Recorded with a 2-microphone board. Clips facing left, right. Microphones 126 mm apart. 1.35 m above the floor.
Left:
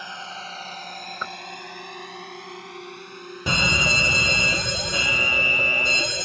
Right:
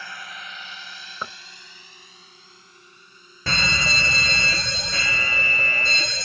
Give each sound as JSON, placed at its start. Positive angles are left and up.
{"t": 0.0, "sound": "a drone", "side_deg": 20}
{"t": 1.2, "sound": "knocking", "side_deg": -10}
{"t": 3.5, "sound": "a fire alarm", "side_deg": 15}